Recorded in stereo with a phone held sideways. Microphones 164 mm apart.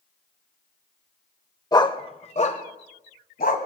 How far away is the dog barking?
About 0.9 m.